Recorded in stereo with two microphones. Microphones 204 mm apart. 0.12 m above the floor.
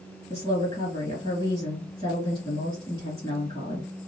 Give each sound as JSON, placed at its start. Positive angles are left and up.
{"t": 0.3, "sound": "a woman speaking", "side_deg": 20, "distance_m": 2.5}